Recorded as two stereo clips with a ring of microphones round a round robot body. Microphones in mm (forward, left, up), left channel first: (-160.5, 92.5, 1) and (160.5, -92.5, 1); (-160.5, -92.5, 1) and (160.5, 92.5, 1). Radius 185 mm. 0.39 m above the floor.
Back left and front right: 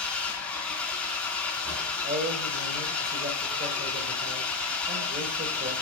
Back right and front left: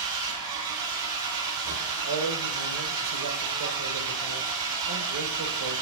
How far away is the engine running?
About 2.5 m.